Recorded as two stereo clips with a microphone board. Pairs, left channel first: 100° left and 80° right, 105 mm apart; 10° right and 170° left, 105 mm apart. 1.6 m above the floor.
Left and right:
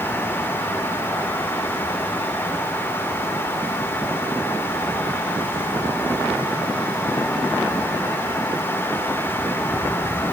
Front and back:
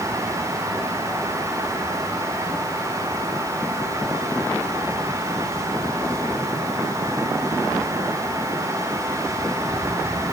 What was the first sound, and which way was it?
Only background noise.